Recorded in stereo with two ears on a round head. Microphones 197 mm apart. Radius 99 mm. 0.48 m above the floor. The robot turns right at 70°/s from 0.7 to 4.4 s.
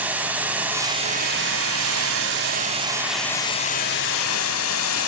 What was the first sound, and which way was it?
Running water, 170° right.